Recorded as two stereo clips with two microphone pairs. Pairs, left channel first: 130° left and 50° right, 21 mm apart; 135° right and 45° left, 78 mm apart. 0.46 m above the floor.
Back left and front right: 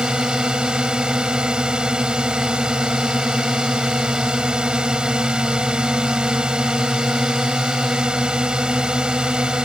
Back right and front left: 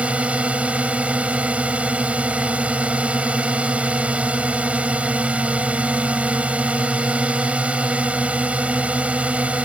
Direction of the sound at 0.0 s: 25° right.